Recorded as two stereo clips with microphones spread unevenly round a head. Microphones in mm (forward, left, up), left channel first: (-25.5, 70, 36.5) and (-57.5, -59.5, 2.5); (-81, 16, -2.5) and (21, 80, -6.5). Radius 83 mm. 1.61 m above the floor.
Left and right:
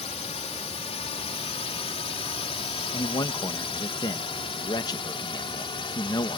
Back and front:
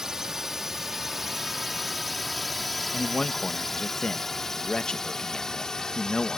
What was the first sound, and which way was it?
A drone, 120° left.